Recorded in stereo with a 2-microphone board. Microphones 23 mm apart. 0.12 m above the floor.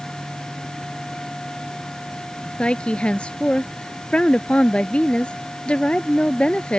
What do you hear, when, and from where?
2.6 s a woman speaking: 55° left (ahead or behind)